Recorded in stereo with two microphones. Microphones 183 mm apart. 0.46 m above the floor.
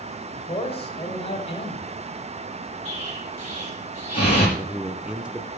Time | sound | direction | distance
0.3 | a man speaking | 30° left (ahead or behind) | 2 m
2.9 | an explosion | 30° left (ahead or behind) | 5.5 m
4.6 | a man speaking | 5° right (ahead or behind) | 0.7 m